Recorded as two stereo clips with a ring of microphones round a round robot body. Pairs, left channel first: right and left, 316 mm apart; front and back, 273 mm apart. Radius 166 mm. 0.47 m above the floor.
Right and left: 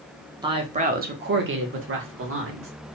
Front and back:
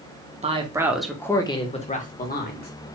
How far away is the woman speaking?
About 1.0 m.